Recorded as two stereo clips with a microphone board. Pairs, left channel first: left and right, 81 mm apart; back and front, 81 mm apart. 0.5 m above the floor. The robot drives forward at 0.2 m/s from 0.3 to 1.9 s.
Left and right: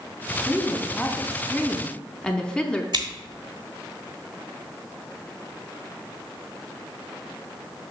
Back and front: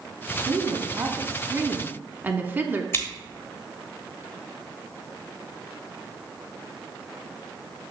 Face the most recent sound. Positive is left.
turn(degrees=-120)